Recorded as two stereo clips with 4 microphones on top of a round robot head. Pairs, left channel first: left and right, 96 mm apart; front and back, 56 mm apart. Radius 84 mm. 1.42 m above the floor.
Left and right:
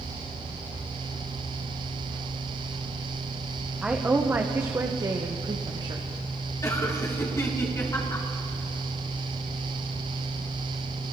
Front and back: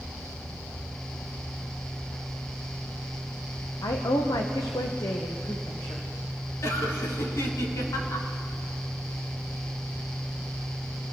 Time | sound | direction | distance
3.8 | a woman speaking | 5° right | 1.3 m
6.6 | laughter | 30° left | 4.5 m